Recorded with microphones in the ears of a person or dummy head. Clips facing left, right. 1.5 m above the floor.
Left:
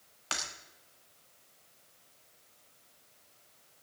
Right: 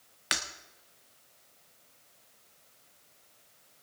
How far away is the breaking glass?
About 1.3 m.